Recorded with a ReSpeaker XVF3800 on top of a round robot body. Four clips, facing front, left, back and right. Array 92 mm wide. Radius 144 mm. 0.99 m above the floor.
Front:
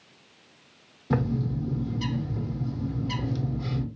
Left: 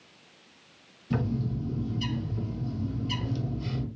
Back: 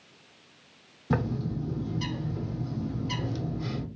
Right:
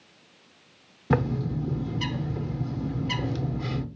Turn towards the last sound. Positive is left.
turn(degrees=-95)